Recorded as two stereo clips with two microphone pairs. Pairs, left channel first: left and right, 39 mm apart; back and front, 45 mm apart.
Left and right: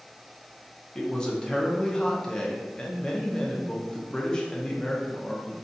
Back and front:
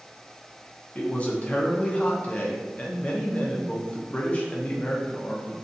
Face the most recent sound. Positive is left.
turn(degrees=145)